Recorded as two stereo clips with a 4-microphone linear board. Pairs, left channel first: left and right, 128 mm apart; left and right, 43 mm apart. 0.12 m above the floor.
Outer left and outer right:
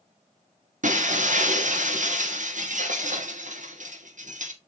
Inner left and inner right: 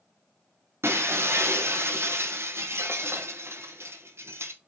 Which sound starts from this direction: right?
Breaking glass, at 0.8 s.